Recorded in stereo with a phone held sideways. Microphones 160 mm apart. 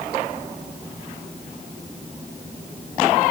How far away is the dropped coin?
I don't hear a dropped coin.